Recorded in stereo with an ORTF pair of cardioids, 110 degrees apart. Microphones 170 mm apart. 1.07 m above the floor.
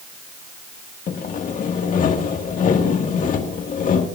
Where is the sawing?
55° left, 1.7 m.